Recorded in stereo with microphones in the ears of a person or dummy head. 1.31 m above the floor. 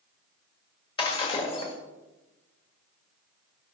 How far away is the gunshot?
No gunshot in this recording.